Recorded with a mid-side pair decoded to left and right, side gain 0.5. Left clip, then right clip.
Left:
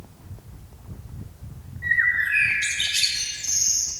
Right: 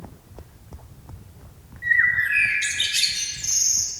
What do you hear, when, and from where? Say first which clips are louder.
1.8 s a bird: right 2 dB; 35° right, 2.5 m